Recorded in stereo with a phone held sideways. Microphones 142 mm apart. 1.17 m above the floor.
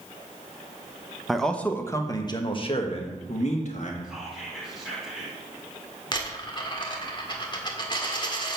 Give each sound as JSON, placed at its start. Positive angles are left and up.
{"t": 1.3, "sound": "a man speaking", "side_deg": 0, "distance_m": 1.1}
{"t": 4.0, "sound": "whispering", "side_deg": 0, "distance_m": 4.0}
{"t": 6.1, "sound": "a dropped coin", "side_deg": 30, "distance_m": 1.5}